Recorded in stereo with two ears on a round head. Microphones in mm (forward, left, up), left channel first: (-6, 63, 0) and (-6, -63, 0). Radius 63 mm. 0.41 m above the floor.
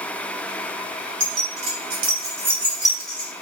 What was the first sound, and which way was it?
Keys jangling, 55° right (ahead or behind).